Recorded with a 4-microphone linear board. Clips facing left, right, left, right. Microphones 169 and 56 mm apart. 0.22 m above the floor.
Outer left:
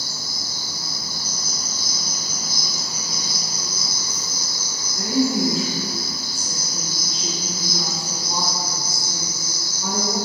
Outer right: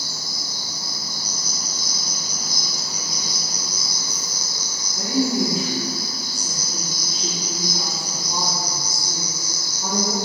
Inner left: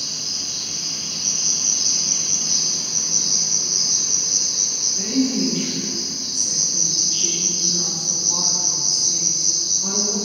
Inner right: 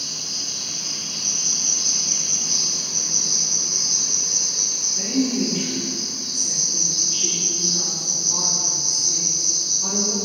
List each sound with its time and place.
0.0 s an insect: 15° right (ahead or behind), 1.7 m
4.9 s a woman speaking: 25° right (ahead or behind), 2.5 m